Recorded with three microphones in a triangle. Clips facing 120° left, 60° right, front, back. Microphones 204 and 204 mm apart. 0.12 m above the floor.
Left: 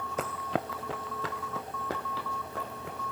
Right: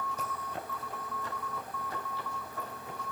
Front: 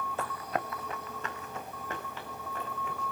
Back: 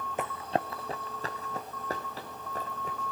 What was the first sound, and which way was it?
Running footsteps, 110° left.